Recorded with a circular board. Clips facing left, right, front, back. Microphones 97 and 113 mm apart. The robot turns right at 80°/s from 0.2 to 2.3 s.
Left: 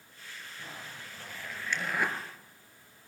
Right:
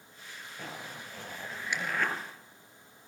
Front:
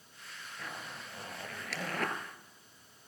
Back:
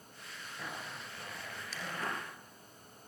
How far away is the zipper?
About 3.5 m.